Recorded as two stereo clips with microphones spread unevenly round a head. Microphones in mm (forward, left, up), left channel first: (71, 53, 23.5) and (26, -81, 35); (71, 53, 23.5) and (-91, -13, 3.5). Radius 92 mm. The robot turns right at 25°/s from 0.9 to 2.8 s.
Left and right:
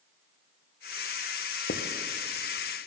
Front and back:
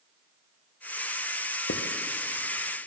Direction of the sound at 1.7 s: 55° left.